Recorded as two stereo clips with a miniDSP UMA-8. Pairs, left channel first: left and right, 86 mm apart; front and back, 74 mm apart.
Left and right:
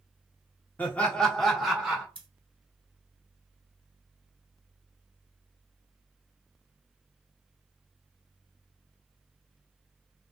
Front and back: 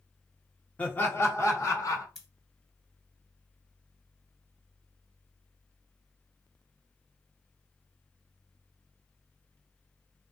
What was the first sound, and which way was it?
Laughter, 45° left.